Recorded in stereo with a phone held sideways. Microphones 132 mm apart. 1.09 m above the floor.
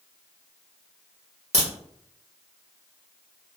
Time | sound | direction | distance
1.5 | a crack | 65° right (ahead or behind) | 1.6 m